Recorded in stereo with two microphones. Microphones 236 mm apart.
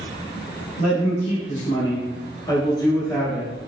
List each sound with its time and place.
0.8 s a man speaking: 40° left (ahead or behind), 1.6 m; by 3.5 s 5° left (ahead or behind), 1.4 m